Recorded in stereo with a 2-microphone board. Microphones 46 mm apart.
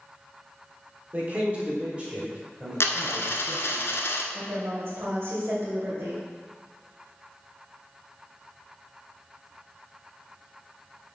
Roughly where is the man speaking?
Right.